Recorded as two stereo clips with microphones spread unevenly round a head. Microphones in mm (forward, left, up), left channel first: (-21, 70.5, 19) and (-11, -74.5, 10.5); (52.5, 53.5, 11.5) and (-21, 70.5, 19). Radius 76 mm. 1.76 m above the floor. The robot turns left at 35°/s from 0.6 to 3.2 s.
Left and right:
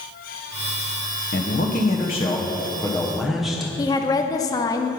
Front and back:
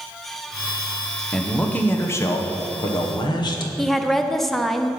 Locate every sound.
1.3 s a man speaking: 70° left, 1.1 m; by 3.7 s 5° left, 1.1 m
3.8 s a woman speaking: 80° left, 0.5 m